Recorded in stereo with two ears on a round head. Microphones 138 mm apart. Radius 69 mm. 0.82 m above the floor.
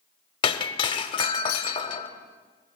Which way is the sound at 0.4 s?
30° left (ahead or behind).